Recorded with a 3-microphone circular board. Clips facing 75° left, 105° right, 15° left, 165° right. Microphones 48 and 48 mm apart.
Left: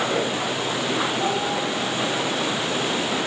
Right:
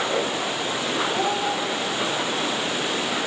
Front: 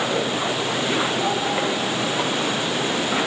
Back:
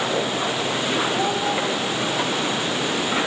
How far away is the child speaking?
About 5.5 m.